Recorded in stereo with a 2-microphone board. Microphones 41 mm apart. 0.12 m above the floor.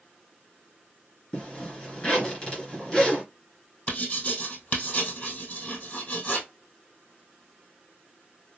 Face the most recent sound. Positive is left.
turn(degrees=35)  # may be behind; listen again after turning